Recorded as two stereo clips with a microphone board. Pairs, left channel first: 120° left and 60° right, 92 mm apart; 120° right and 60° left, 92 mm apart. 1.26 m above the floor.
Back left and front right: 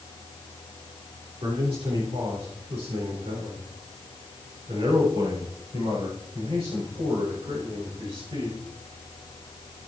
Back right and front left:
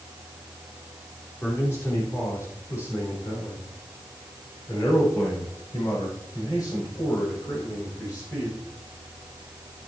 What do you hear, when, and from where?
1.4 s a man speaking: 55° right, 3 m; by 8.6 s 75° right, 6.5 m